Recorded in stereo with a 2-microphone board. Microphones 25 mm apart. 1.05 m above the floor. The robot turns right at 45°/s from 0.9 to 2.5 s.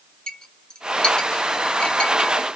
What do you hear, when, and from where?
0.3 s a clink: 35° left (ahead or behind), 0.6 m; by 2.3 s 55° left (ahead or behind), 0.6 m